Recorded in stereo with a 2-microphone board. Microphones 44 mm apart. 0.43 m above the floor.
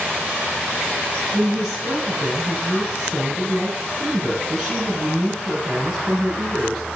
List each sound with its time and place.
1.3 s a woman speaking: 10° right (ahead or behind), 5.5 m